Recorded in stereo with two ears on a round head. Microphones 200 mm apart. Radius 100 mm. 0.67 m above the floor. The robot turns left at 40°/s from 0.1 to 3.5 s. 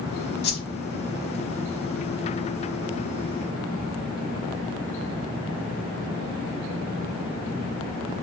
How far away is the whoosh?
About 0.9 m.